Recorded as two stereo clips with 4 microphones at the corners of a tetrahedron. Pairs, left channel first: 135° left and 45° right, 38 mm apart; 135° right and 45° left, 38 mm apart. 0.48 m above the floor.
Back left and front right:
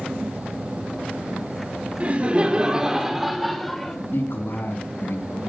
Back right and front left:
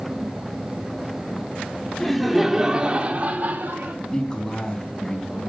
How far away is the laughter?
About 1.5 m.